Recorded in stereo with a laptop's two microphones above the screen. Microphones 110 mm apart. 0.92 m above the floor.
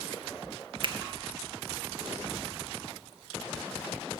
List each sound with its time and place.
0.8 s a finger snap: 50° right (ahead or behind), 0.6 m